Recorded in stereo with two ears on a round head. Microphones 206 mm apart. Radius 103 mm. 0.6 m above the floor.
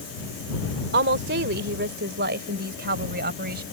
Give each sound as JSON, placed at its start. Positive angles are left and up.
{"t": 0.9, "sound": "a woman speaking", "side_deg": -50}